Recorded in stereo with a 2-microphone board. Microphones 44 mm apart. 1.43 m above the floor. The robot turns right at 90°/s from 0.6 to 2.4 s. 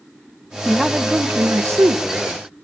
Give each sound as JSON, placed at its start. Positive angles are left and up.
{"t": 0.7, "sound": "a man speaking", "azimuth_deg": 165, "distance_m": 1.1}